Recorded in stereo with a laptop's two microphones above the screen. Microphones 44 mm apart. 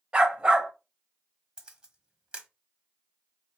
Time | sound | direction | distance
0.1 | a dog barking | 20° right (ahead or behind) | 2.0 m
1.6 | a camera shutter | 20° right (ahead or behind) | 1.2 m